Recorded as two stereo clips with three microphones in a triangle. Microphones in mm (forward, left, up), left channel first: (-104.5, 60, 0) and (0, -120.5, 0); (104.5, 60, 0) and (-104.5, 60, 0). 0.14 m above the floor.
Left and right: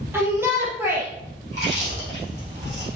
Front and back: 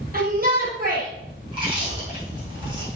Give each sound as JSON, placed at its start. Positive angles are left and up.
{"t": 0.1, "sound": "a shout", "azimuth_deg": -140, "distance_m": 3.0}
{"t": 1.5, "sound": "chewing", "azimuth_deg": -115, "distance_m": 5.5}